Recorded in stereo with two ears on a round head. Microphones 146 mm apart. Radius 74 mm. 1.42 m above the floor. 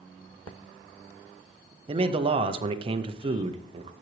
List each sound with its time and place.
1.9 s a man speaking: 35° right (ahead or behind), 0.6 m